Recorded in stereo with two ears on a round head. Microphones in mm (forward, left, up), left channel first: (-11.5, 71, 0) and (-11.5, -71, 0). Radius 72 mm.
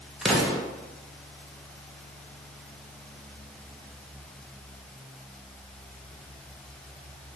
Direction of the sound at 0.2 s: Centre (ahead or behind).